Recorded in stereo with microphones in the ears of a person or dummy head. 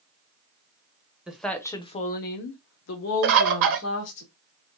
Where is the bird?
75° right (ahead or behind), 0.9 m.